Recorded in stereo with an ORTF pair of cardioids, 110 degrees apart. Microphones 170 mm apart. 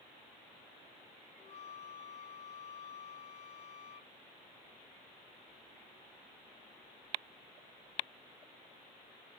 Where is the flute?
45° left.